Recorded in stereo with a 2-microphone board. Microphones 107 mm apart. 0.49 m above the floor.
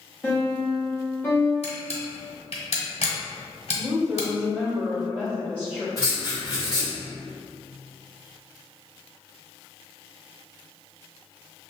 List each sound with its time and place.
0.2 s a piano: 20° left (ahead or behind), 1.2 m
1.6 s a camera shutter: 75° left (ahead or behind), 1.1 m
3.8 s a woman speaking: 10° left (ahead or behind), 1.7 m
6.0 s writing: 35° left (ahead or behind), 1.6 m